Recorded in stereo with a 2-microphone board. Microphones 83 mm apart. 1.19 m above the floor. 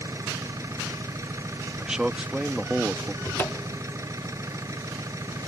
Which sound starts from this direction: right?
An engine running, at 0.0 s.